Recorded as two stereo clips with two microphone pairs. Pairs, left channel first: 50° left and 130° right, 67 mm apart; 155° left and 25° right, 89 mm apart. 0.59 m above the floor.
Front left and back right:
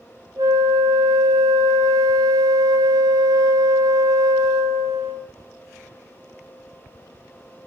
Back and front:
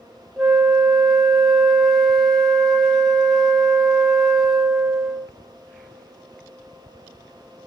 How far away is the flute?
About 0.6 m.